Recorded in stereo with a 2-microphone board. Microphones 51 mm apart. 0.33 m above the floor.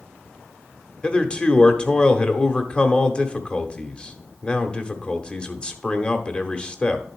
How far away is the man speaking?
About 0.9 m.